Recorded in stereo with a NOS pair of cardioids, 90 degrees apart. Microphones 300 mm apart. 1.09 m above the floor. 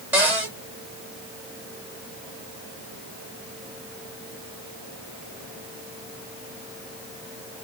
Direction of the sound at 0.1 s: 5° right.